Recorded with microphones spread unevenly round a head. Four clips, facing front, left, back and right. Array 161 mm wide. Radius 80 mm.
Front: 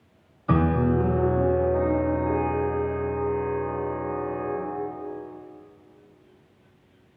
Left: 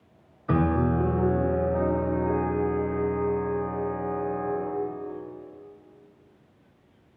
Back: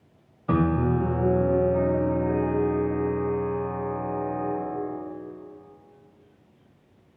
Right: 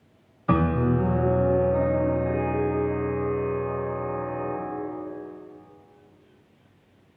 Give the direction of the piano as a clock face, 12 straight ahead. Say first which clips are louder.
Right 1 dB, front 1 dB; 4 o'clock.